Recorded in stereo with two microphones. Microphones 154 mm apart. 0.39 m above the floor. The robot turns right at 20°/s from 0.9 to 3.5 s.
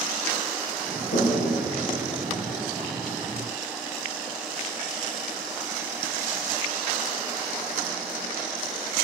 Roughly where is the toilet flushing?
Left.